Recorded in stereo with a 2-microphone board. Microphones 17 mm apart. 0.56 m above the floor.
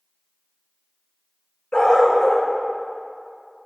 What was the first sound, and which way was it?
A dog barking, 65° left (ahead or behind).